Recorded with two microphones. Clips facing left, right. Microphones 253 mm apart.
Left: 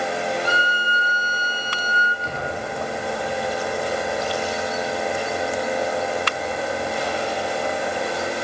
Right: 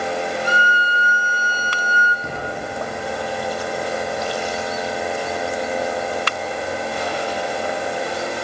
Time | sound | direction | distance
0.5 | a violin | 15° right (ahead or behind) | 5 m
2.2 | an explosion | 55° right (ahead or behind) | 7 m